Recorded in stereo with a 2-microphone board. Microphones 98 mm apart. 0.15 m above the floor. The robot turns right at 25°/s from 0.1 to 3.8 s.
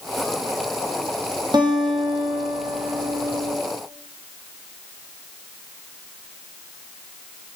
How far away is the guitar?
About 1.1 m.